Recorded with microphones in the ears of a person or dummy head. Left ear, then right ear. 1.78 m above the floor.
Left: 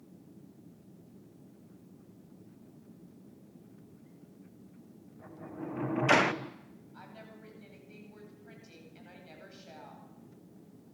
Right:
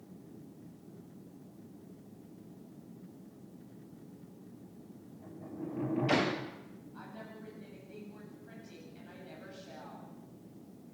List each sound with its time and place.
5.2 s a sliding door: 45° left (ahead or behind), 1.1 m
6.9 s a woman speaking: 25° left (ahead or behind), 9 m